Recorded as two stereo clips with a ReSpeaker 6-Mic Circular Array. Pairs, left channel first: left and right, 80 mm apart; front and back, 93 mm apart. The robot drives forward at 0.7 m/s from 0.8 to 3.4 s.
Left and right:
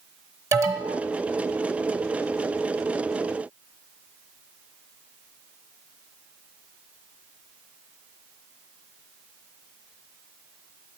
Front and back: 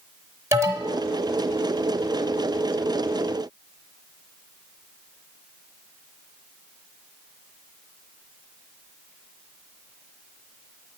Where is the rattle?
No rattle in this recording.